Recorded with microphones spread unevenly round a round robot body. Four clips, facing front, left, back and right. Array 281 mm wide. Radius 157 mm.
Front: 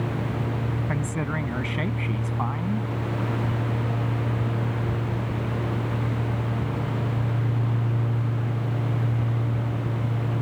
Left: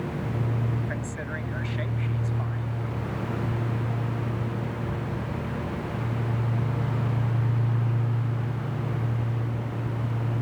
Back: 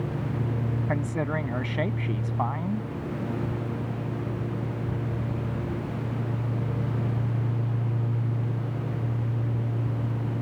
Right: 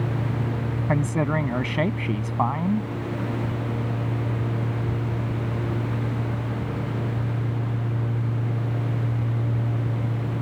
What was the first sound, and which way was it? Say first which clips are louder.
A man speaking: right 10 dB, back 3 dB; 85° right.